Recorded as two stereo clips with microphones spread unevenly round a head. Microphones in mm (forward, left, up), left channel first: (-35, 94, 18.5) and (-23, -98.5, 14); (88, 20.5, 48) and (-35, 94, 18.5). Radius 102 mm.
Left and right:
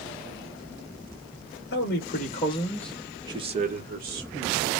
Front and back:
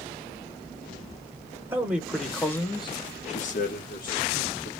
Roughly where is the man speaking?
Left.